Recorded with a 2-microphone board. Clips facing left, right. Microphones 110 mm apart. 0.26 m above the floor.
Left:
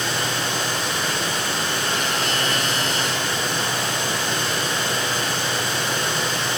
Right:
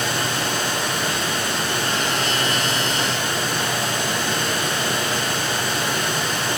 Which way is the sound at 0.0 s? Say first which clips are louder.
Right 1 dB; 50° right (ahead or behind).